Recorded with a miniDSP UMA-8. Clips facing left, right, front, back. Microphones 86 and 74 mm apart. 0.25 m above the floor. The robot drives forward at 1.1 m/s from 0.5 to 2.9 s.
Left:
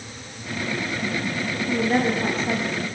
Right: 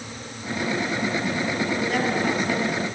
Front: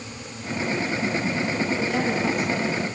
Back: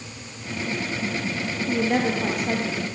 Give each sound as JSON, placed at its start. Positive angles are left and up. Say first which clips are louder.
{"t": 1.7, "sound": "a woman speaking", "louder": "left 7 dB, back 2 dB", "azimuth_deg": 145, "distance_m": 6.0}